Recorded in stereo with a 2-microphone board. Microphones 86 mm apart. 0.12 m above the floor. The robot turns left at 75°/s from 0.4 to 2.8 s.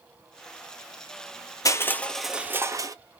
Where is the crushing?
45° left, 0.5 m; by 3.0 s 45° right, 0.5 m.